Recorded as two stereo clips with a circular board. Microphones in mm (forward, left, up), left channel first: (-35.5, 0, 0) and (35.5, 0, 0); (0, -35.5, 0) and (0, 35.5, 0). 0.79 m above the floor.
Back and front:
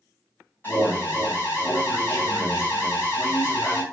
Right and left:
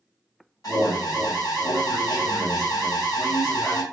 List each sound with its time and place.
0.6 s an alarm: 120° right, 2.5 m